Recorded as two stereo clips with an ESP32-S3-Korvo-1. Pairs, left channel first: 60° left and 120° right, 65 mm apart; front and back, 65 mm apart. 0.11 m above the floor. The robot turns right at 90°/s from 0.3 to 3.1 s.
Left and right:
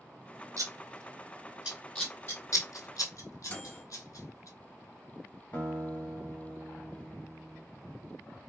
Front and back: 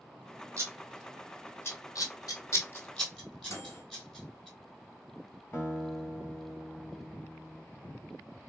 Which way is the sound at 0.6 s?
145° right.